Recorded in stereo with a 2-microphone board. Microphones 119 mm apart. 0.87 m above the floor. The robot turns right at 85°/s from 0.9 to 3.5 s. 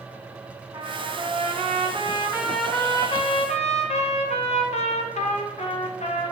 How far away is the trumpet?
About 0.6 m.